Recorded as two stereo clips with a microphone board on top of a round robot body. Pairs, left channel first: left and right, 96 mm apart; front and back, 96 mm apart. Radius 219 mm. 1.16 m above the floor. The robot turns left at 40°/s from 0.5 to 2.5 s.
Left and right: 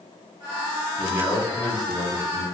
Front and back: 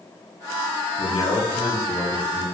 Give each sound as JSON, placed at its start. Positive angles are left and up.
{"t": 1.0, "sound": "a man speaking", "azimuth_deg": -15, "distance_m": 2.0}